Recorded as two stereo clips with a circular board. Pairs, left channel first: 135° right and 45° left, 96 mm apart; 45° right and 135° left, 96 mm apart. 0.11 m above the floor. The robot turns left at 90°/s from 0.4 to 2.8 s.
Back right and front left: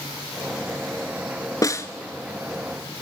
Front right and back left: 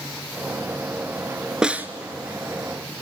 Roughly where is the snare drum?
Behind right.